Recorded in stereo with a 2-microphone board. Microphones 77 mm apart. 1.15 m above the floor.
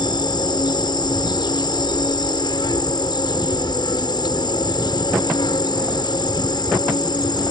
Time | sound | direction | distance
0.0 | an insect | 75° left (ahead or behind) | ?